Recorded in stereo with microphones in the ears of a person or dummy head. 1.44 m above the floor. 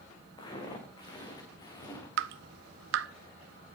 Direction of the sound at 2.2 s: 70° right (ahead or behind).